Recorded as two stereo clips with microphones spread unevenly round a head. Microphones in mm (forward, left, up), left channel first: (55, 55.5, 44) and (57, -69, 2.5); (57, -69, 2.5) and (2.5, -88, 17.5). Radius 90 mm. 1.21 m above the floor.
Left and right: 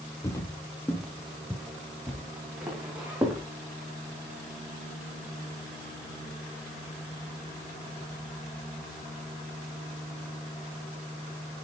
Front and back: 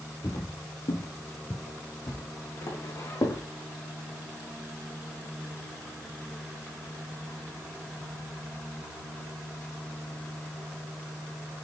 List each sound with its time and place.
0.2 s footsteps: 50° left, 1.8 m; by 3.4 s 5° right, 4.5 m